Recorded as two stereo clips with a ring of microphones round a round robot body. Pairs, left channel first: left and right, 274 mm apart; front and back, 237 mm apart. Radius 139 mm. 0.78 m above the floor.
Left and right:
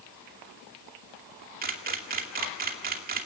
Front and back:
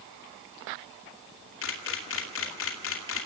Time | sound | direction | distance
1.6 | a camera shutter | 35° right | 2.5 m